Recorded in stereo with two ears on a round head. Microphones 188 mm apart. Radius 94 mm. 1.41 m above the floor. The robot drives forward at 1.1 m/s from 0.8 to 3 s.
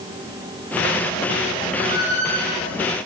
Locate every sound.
1.7 s a squeak: 35° right (ahead or behind), 8 m; by 2.7 s 40° right (ahead or behind), 7 m